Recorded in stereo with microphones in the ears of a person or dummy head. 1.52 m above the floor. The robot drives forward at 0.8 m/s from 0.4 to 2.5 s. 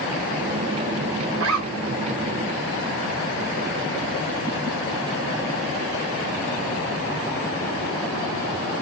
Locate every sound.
1.4 s a zipper: 75° right (ahead or behind), 5.5 m; by 2.0 s 80° right, 5.5 m